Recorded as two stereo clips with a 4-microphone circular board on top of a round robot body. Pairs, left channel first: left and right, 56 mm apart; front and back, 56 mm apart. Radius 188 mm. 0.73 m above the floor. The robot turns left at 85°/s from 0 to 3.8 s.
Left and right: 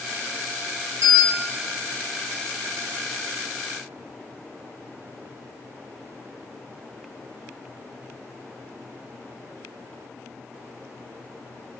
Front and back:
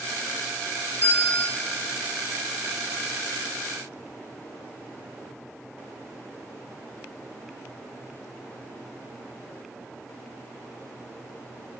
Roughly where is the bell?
Ahead right.